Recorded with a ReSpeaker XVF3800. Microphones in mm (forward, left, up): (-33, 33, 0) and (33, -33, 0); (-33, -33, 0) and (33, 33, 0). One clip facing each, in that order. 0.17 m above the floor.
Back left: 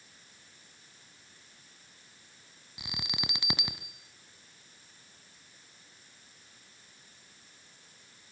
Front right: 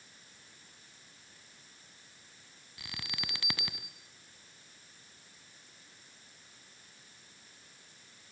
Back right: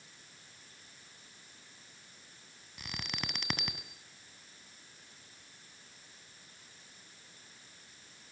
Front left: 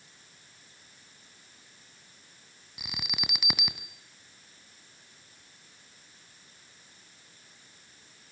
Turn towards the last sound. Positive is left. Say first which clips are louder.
# back left 4 dB, front left 1 dB
turn(degrees=115)